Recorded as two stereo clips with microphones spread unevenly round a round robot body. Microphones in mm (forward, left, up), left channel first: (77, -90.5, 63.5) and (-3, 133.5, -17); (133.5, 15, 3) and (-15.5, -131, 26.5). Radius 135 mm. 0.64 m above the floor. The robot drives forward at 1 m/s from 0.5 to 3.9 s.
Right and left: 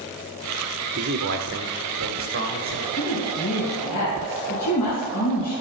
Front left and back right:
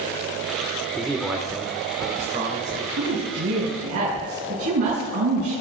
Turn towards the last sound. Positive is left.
turn(degrees=-145)